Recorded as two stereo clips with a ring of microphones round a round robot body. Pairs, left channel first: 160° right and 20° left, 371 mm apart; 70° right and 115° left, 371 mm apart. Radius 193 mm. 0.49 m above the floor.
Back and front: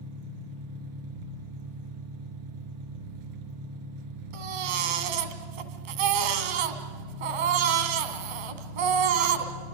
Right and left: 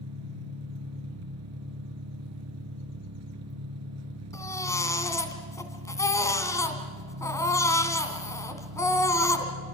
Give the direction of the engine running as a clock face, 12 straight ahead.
10 o'clock.